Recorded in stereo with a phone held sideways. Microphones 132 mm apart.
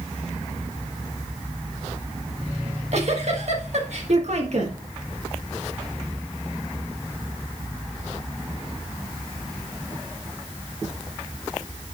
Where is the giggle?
60° right (ahead or behind), 1.6 m.